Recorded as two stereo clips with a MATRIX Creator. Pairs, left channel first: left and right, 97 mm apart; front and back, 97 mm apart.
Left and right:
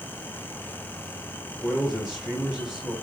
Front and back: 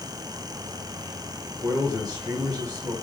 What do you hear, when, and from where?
1.6 s a man speaking: 170° right, 1.5 m